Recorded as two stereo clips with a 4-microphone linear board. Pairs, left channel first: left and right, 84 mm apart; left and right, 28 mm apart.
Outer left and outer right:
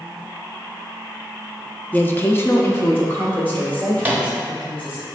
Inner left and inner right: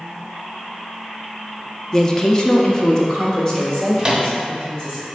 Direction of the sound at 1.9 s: 20° left (ahead or behind).